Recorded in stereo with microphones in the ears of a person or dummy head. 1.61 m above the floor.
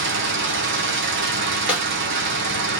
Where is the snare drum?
5° right (ahead or behind), 2 m.